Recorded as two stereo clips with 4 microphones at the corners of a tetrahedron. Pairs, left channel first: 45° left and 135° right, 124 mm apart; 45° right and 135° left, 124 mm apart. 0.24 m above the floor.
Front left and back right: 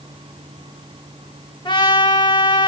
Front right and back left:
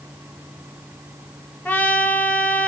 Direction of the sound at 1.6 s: 25° left.